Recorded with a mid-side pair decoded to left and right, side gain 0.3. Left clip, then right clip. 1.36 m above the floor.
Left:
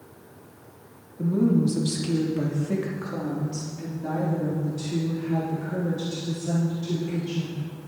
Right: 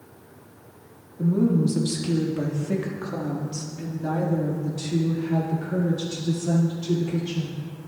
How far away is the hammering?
No hammering in this recording.